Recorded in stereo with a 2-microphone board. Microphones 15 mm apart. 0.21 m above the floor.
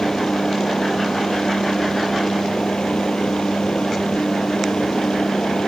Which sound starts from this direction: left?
A helicopter, at 0.0 s.